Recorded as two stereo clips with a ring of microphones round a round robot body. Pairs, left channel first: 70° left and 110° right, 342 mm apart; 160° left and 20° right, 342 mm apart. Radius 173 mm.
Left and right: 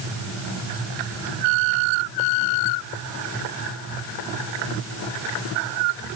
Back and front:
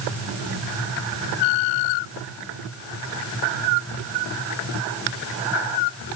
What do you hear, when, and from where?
Only background noise.